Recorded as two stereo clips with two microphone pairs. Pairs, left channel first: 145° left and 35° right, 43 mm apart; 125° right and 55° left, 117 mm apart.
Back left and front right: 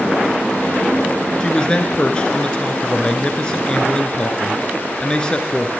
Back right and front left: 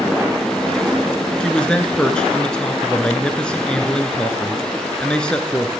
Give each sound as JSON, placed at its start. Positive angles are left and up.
{"t": 1.4, "sound": "a man speaking", "azimuth_deg": 165, "distance_m": 1.4}